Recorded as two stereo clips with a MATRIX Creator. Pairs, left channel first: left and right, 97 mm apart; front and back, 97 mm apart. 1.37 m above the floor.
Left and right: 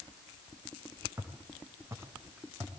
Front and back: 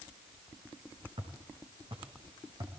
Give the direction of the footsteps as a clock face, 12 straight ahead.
5 o'clock.